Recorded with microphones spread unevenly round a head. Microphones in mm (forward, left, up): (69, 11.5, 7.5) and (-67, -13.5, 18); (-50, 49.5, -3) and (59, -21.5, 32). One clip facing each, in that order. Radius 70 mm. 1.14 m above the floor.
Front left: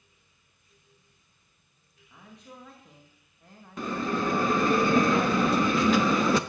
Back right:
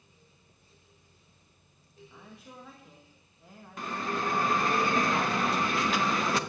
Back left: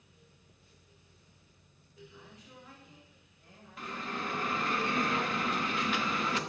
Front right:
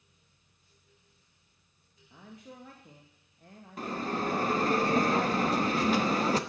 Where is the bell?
20° left, 1.1 m.